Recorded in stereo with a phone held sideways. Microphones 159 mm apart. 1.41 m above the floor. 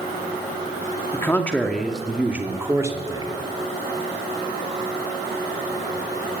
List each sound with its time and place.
1.1 s a man speaking: 15° left (ahead or behind), 2.5 m; by 3.3 s 25° right (ahead or behind), 3 m